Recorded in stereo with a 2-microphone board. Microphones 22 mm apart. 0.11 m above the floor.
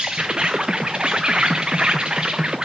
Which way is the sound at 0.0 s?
45° right (ahead or behind).